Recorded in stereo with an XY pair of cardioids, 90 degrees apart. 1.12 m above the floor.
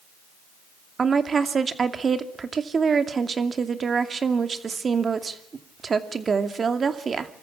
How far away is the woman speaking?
About 2.5 m.